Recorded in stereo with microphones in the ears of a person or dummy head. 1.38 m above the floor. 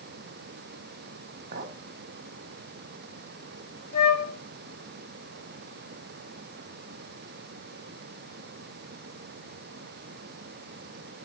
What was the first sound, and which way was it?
A clink, 50° right (ahead or behind).